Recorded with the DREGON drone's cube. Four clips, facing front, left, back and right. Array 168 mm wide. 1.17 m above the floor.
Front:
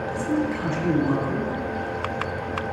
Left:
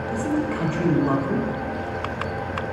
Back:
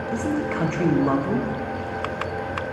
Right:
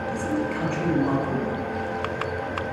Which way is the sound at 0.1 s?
160° left.